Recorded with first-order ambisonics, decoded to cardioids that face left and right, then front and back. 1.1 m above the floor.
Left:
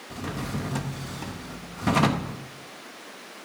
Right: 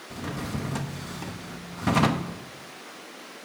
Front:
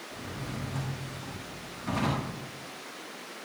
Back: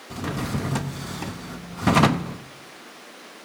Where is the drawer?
Straight behind, 0.6 m.